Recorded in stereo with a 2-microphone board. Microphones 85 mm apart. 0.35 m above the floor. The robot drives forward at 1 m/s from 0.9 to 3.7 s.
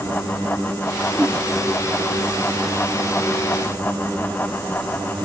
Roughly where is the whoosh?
Centre.